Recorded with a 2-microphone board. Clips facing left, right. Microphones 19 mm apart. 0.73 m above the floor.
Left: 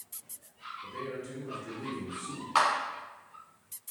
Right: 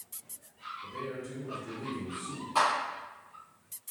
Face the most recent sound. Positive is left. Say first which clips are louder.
# left 1 dB
turn(degrees=55)  # may be behind; listen again after turning